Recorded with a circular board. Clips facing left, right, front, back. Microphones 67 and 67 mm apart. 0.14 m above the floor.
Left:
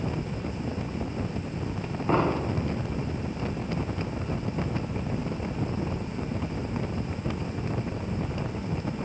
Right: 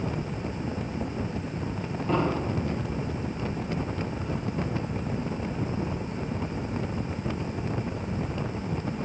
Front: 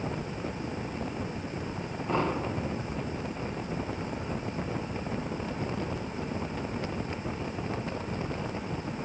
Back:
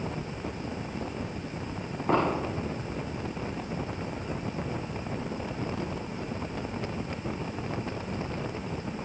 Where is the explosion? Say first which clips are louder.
Left 2 dB, back 3 dB; 140° left, 8.5 m.